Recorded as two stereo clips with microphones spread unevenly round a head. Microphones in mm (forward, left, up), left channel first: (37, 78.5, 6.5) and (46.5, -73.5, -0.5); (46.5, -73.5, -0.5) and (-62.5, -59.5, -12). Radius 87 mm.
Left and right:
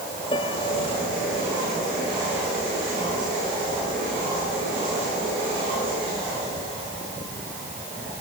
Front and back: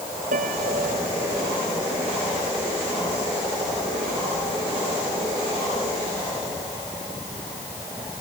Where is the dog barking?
No dog barking in this recording.